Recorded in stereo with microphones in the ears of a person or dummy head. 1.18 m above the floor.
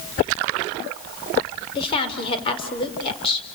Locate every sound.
1.8 s a woman speaking: 25° left (ahead or behind), 4.5 m